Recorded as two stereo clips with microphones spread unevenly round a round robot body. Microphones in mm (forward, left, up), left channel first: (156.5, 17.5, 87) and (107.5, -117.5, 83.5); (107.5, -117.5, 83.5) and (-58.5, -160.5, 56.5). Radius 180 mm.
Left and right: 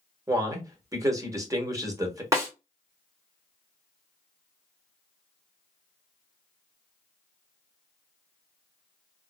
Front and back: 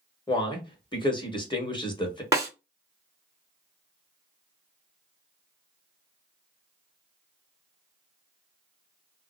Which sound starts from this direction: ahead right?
A man speaking, at 0.3 s.